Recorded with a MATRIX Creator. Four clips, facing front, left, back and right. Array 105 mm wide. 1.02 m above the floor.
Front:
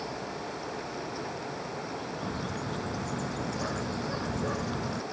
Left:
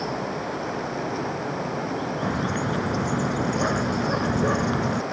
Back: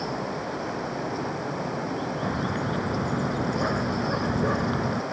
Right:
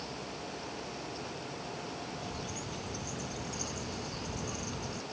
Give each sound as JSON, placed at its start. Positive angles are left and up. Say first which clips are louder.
{"t": 0.0, "sound": "running water", "louder": "left 14 dB, back 6 dB", "azimuth_deg": 130}
{"t": 2.2, "sound": "a bird", "louder": "left 15 dB, back 7 dB", "azimuth_deg": 120}